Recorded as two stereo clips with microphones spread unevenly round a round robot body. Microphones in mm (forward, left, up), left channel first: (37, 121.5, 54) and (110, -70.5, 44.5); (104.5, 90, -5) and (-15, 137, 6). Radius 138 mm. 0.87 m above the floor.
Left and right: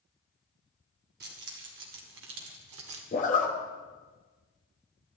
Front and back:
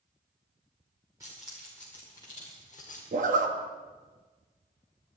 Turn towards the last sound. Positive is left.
turn(degrees=165)